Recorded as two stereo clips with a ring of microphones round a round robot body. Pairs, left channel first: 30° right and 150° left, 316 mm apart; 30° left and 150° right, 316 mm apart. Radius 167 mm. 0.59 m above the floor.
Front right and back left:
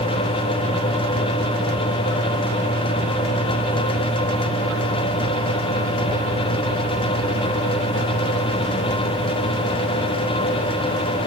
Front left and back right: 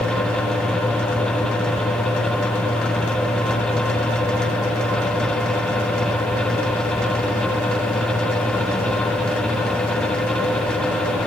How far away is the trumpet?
No trumpet in this recording.